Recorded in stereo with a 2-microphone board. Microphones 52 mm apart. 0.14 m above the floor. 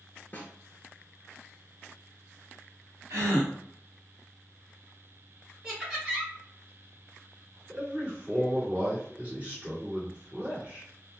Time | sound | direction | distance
0.3 | a snare drum | 35° left (ahead or behind) | 0.7 m
3.1 | a gasp | 70° right (ahead or behind) | 0.8 m
5.6 | laughter | 10° right (ahead or behind) | 1.2 m
7.7 | a man speaking | 25° right (ahead or behind) | 1.8 m